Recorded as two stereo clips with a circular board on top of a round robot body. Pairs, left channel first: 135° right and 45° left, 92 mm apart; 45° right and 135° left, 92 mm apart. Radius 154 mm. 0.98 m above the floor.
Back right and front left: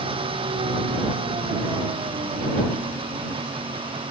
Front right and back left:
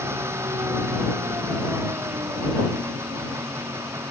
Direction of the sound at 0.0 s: 70° left.